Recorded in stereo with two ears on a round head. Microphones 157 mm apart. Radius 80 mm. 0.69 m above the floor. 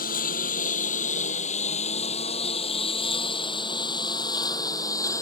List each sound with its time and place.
0.0 s a lawn mower: 50° left (ahead or behind); by 5.2 s 20° left (ahead or behind)